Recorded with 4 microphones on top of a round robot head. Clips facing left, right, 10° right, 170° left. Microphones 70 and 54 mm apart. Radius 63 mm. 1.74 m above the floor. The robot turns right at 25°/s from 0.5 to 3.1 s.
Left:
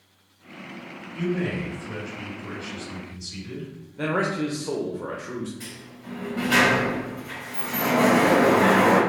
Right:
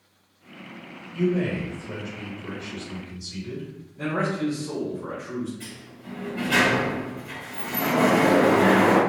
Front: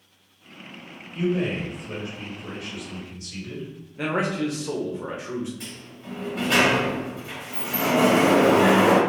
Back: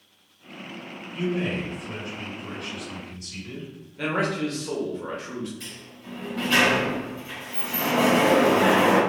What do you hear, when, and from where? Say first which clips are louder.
1.1 s a man speaking: right 3 dB, front 2 dB; 90° right, 1.6 m; by 3.7 s 40° right, 1.6 m
4.0 s a man speaking: left 1 dB, front 1 dB; 55° left, 0.6 m
5.6 s a sliding door: left 1 dB, front 2 dB; 10° left, 1.2 m